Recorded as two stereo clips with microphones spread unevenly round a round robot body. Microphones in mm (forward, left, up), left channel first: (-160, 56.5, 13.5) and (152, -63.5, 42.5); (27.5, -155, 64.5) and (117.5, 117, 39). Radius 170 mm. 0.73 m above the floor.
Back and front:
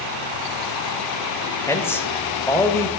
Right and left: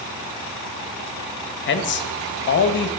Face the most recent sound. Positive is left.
turn(degrees=-130)